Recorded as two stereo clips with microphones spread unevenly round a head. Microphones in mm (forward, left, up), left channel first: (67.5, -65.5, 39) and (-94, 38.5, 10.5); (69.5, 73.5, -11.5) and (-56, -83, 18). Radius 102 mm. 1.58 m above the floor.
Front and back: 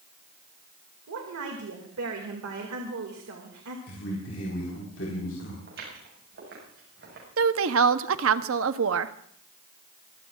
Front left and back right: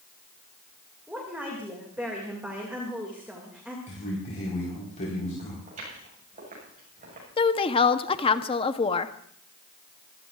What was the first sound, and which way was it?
A woman speaking, 145° left.